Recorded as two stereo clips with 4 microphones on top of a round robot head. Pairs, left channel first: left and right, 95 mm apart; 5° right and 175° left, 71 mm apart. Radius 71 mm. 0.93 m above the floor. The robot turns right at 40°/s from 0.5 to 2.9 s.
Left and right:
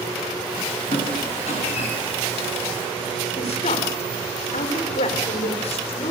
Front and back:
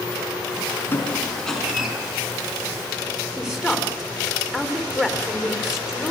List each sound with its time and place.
0.9 s a squeak: 55° left, 5 m; by 1.9 s 95° left, 5 m
3.4 s a woman speaking: 90° left, 3.5 m